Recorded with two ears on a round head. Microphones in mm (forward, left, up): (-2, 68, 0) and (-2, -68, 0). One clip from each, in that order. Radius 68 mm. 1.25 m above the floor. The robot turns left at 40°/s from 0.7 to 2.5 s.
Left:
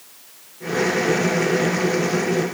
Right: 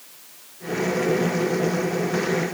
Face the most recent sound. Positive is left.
No sound to turn to.